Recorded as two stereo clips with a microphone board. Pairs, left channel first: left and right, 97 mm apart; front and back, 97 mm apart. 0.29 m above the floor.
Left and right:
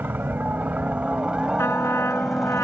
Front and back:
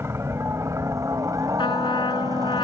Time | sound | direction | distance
0.0 | a helicopter | 145° right | ?
1.6 | a trumpet | 30° left | ?